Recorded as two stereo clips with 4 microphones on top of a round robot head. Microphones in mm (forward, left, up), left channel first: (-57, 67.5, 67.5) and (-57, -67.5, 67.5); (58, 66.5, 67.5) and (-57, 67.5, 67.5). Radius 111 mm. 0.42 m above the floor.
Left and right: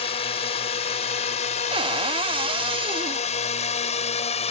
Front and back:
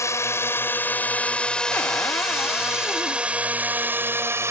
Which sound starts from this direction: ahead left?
A drone, at 0.0 s.